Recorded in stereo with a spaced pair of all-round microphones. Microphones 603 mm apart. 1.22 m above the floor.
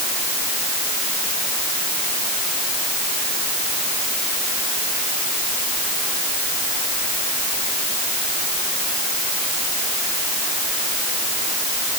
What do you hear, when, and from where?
Only background noise.